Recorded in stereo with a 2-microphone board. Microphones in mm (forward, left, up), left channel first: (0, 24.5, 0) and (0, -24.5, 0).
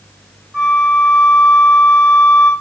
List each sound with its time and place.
0.5 s a flute: 35° right (ahead or behind), 4 m